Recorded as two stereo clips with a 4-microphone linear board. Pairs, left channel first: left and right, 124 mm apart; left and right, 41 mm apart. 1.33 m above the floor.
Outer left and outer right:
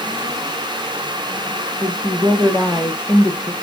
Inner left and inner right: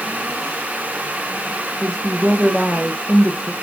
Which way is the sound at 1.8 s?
10° right (ahead or behind).